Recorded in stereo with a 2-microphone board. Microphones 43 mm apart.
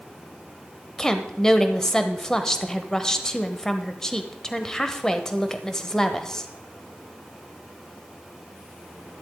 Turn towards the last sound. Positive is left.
turn(degrees=15)  # may be behind; listen again after turning